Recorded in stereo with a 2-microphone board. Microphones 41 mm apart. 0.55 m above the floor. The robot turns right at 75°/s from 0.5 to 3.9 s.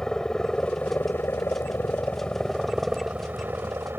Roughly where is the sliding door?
No sliding door in this recording.